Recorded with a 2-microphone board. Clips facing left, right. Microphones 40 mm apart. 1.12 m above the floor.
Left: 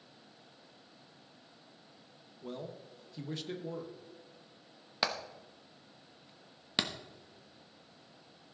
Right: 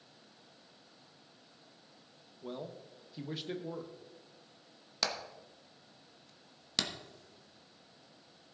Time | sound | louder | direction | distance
2.4 | a man speaking | even | 10° right (ahead or behind) | 0.9 m
5.0 | hammering | left 2 dB | 20° left (ahead or behind) | 0.9 m